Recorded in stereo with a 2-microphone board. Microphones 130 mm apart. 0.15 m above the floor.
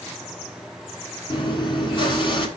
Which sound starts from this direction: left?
Chewing, at 1.3 s.